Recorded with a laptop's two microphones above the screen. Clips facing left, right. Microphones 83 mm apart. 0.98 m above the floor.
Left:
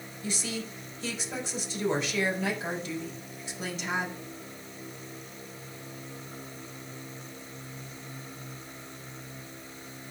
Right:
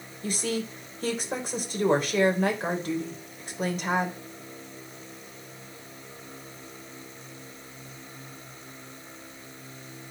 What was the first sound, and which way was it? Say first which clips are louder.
A woman speaking: right 6 dB; 50° right (ahead or behind).